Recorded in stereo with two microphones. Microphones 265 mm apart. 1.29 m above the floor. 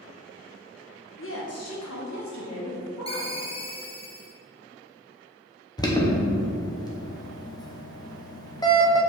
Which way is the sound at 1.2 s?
45° left (ahead or behind).